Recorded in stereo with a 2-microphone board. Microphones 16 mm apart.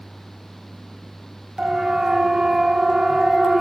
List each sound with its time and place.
1.6 s a siren: 50° right (ahead or behind), 2.5 m; by 3.6 s 30° right (ahead or behind), 2.5 m